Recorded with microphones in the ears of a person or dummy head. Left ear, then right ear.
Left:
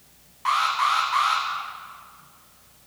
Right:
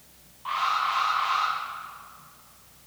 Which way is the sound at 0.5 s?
65° left (ahead or behind).